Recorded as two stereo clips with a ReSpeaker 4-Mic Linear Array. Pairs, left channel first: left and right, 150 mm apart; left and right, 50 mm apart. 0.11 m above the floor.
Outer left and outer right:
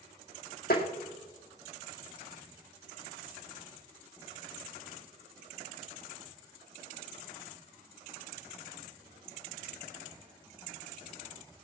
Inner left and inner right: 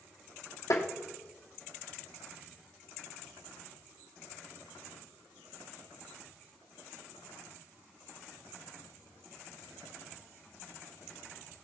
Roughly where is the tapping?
Left.